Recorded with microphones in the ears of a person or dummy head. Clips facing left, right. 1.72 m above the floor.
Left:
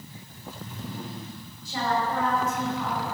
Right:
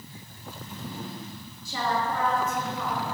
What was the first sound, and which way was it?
A woman speaking, 85° right.